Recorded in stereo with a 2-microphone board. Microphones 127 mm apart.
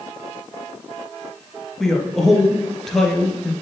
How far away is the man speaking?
About 1.8 m.